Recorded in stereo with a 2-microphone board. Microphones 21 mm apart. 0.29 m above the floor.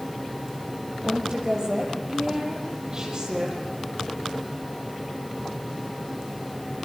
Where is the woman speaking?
35° right (ahead or behind), 7.5 m.